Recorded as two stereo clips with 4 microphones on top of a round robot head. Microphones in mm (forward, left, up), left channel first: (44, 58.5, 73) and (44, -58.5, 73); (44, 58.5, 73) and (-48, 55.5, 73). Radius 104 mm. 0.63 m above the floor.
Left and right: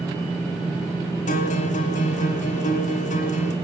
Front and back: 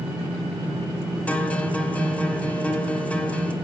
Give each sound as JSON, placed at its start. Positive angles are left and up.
{"t": 1.3, "sound": "a guitar", "azimuth_deg": 75, "distance_m": 1.0}